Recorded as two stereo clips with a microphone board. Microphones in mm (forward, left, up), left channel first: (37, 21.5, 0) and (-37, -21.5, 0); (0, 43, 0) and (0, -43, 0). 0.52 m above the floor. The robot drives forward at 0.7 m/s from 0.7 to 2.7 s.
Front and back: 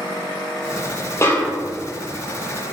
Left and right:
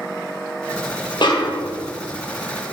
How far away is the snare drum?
About 0.6 m.